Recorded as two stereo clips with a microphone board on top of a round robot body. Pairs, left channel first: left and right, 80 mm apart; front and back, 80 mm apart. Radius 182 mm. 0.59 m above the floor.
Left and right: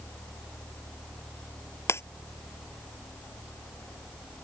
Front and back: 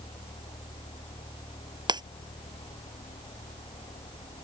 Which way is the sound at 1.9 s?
150° left.